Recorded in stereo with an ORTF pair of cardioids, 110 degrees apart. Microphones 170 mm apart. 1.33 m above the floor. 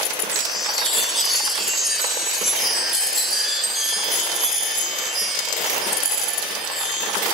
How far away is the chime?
About 4.5 m.